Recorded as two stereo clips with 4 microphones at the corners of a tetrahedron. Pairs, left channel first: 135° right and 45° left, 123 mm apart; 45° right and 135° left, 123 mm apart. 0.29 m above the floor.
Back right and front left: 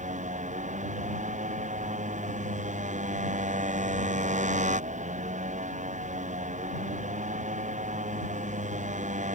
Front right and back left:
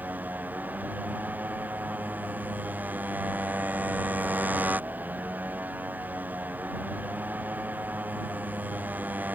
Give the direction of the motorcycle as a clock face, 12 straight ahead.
10 o'clock.